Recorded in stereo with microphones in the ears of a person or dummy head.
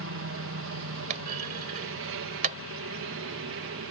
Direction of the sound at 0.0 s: 65° right (ahead or behind).